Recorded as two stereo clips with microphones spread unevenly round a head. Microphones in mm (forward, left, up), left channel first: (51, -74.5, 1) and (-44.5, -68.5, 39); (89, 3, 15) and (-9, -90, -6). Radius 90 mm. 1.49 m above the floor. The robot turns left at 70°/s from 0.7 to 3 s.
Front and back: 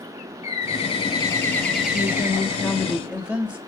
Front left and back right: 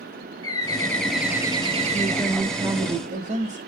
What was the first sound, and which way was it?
A bird, 15° right.